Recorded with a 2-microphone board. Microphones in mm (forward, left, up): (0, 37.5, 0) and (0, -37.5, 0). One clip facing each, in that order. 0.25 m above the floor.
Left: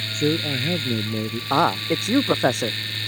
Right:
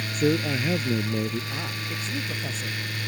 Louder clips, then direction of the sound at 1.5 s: Left 13 dB; 65° left (ahead or behind).